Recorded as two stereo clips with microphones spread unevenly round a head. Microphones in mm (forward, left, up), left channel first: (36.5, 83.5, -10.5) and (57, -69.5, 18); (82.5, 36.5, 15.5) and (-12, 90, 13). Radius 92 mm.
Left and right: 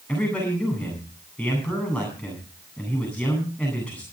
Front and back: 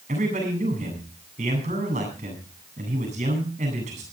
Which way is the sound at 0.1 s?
Straight behind.